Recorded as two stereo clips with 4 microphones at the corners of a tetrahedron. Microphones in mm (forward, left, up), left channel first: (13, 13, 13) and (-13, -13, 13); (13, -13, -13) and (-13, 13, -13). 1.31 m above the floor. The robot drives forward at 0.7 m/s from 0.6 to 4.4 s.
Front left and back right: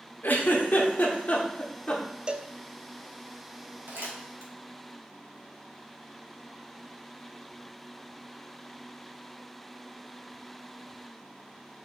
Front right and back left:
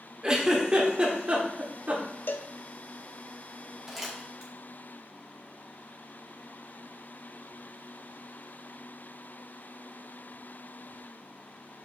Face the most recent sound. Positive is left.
turn(degrees=-150)